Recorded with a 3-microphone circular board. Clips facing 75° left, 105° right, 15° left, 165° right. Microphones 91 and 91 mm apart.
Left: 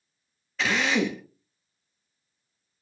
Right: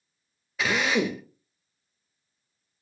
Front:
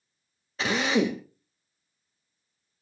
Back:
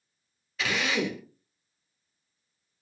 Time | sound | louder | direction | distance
0.6 | a drill | even, front 4 dB | 25° right | 0.8 m